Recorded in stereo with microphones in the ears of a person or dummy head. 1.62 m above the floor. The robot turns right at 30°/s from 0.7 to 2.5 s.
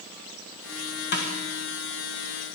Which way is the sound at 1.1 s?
60° left (ahead or behind).